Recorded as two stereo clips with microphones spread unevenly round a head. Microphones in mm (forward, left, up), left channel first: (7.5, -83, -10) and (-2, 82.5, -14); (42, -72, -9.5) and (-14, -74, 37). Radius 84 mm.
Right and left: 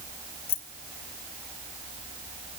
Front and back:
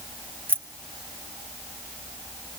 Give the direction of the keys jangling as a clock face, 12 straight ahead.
4 o'clock.